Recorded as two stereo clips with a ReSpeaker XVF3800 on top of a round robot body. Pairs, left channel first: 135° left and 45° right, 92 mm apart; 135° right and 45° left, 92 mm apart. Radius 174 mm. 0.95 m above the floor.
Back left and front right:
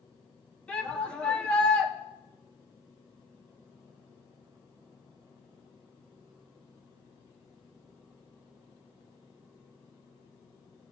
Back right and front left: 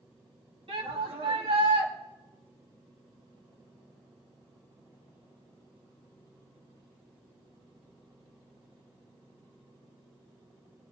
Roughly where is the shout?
Ahead left.